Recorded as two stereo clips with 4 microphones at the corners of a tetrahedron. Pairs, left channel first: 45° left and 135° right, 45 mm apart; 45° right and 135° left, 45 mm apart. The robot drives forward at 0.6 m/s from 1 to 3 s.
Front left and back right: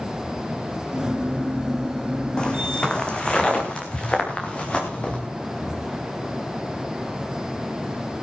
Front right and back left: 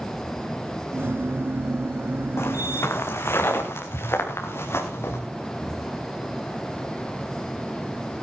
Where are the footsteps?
25° right, 2 m; by 5.2 s 20° right, 5.5 m.